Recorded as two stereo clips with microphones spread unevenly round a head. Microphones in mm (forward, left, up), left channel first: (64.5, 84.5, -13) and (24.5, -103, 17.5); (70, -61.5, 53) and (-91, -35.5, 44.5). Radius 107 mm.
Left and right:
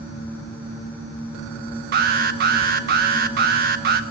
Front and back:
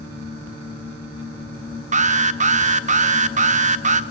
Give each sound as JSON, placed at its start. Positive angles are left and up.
{"t": 1.9, "sound": "an alarm", "azimuth_deg": -150, "distance_m": 0.8}